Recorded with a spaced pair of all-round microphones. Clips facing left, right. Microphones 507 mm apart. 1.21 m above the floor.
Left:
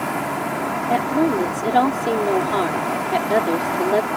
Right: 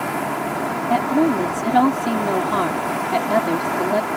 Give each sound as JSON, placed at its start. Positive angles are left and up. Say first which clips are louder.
{"t": 0.9, "sound": "a woman speaking", "louder": "right 1 dB", "side_deg": -30}